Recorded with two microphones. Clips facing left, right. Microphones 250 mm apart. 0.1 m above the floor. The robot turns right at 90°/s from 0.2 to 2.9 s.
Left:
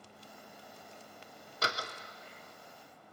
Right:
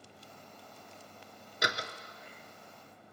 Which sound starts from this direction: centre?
A door slam, at 1.6 s.